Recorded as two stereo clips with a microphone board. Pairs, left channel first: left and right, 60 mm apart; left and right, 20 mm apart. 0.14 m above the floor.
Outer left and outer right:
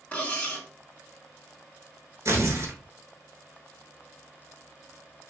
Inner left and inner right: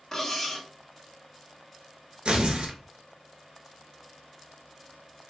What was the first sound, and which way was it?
Cutlery clinking, 20° left (ahead or behind).